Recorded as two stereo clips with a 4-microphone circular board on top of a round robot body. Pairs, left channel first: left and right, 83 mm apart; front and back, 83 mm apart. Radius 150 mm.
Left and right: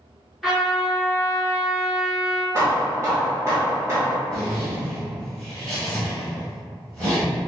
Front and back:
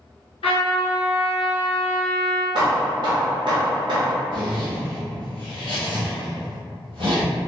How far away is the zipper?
About 1.2 m.